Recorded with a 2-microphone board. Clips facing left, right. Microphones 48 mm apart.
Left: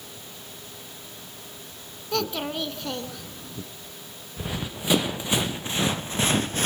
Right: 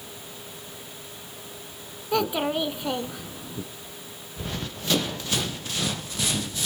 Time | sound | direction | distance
2.1 | a child speaking | 20° right (ahead or behind) | 0.7 m
4.4 | running footsteps | 15° left (ahead or behind) | 2.5 m